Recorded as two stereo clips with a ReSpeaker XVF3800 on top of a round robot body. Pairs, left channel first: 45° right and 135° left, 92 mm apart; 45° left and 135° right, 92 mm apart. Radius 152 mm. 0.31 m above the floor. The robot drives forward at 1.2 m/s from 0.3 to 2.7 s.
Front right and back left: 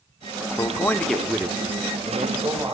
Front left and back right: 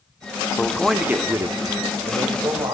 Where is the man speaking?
20° right, 1.0 m; by 2.7 s 175° right, 2 m.